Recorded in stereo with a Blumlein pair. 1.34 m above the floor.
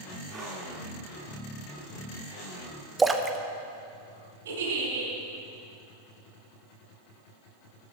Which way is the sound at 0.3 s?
20° right.